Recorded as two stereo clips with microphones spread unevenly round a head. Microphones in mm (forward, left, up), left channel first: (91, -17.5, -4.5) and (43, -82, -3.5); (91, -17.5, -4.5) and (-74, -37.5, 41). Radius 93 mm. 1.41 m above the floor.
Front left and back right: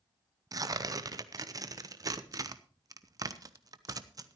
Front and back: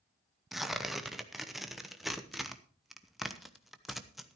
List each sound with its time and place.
0.5 s tearing paper: 80° right, 1.0 m